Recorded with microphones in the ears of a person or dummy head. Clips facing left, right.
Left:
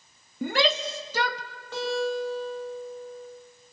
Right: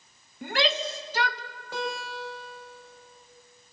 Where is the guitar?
10° right (ahead or behind), 7 m.